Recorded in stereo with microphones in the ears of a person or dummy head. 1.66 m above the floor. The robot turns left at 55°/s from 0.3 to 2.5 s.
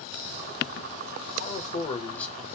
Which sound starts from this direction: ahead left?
A man speaking, at 1.4 s.